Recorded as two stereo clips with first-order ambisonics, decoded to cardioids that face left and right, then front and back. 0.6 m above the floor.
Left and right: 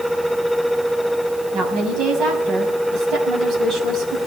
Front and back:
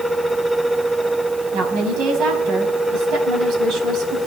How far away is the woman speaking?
About 5 m.